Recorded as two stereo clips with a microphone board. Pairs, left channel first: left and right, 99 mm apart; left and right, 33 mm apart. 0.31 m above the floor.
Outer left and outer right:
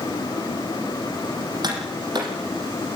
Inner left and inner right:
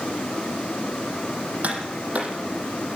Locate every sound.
1.6 s tapping: 45° right (ahead or behind), 7.5 m